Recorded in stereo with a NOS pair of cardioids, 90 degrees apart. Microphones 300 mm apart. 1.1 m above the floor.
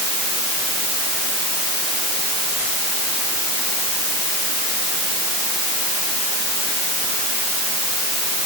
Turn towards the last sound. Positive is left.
No sound to turn to.